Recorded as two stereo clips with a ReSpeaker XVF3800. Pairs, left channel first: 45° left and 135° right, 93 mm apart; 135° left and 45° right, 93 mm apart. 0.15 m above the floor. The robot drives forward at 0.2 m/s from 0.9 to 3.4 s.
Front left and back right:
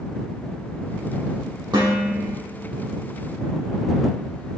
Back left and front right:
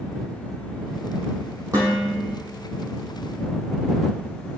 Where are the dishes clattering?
100° right, 3.5 m; by 2.4 s 105° right, 3.5 m.